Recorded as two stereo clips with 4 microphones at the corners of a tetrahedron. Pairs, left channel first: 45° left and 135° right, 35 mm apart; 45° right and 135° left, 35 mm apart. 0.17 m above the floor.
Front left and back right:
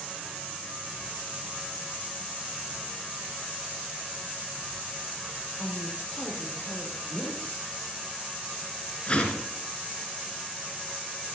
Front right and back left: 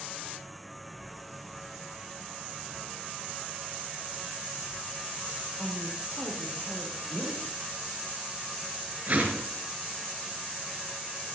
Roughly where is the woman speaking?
Left.